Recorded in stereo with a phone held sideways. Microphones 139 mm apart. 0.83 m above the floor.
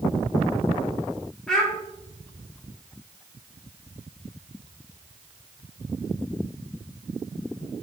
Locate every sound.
1.5 s a child speaking: 5° left (ahead or behind), 2 m